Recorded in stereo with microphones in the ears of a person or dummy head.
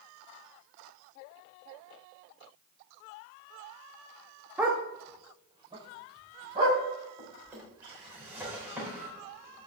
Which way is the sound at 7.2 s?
10° right (ahead or behind).